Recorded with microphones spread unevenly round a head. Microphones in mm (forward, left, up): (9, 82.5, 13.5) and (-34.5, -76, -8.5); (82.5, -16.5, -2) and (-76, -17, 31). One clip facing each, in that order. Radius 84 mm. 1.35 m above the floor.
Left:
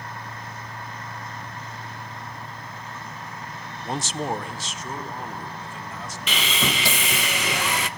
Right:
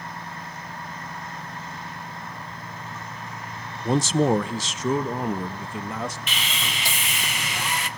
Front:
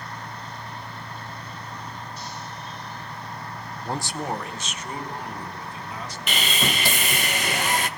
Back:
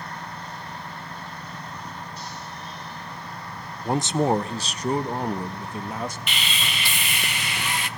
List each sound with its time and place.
3.9 s a man speaking: 105° right, 0.8 m; by 6.2 s 140° right, 2.5 m
6.3 s sawing: 55° left, 0.9 m